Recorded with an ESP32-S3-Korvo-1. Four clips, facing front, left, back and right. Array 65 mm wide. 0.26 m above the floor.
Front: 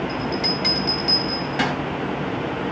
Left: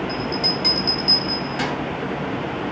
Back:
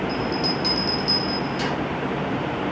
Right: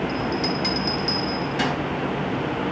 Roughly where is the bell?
Ahead.